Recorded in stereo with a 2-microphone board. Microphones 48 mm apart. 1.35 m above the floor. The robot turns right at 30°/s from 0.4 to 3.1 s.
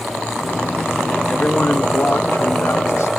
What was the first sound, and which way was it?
A man speaking, 25° left.